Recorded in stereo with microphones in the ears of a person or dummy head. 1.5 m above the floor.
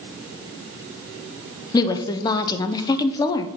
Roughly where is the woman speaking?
Left.